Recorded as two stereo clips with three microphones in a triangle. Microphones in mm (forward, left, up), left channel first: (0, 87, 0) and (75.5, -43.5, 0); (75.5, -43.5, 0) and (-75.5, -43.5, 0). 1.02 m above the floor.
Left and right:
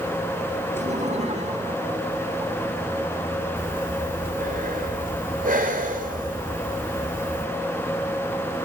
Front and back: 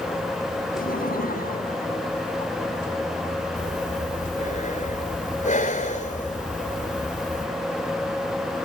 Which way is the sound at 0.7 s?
20° right.